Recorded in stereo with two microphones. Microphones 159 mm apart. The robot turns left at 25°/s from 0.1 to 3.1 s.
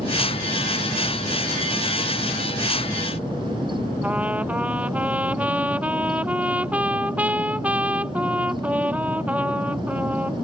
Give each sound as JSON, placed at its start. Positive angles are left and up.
{"t": 4.0, "sound": "a trumpet", "side_deg": -10}